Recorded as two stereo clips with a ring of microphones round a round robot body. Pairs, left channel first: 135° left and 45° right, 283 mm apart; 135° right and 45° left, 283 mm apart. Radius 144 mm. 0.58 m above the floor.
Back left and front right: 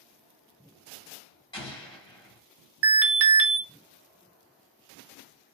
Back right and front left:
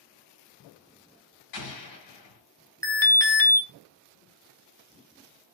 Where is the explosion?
150° right, 1.9 m.